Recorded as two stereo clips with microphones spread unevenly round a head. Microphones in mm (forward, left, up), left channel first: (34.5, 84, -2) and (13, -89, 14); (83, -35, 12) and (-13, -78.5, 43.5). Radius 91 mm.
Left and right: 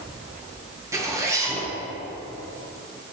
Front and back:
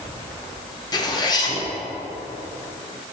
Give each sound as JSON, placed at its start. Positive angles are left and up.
{"t": 0.9, "sound": "a zipper", "azimuth_deg": -20, "distance_m": 1.7}